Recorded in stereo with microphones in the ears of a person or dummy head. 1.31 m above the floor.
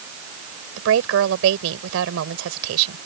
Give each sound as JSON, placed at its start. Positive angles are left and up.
{"t": 0.8, "sound": "a woman speaking", "side_deg": -80}